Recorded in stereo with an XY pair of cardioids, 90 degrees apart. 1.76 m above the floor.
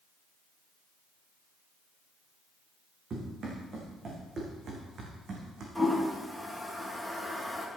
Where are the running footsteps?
55° right, 6.5 m; by 5.7 s 60° right, 5 m.